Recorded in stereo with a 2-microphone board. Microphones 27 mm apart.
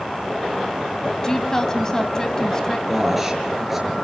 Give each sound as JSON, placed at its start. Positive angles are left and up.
{"t": 1.2, "sound": "a woman speaking", "side_deg": 20, "distance_m": 2.5}
{"t": 2.9, "sound": "a man speaking", "side_deg": -10, "distance_m": 5.5}